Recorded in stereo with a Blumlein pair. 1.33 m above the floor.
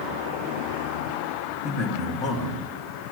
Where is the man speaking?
20° left, 2.5 m.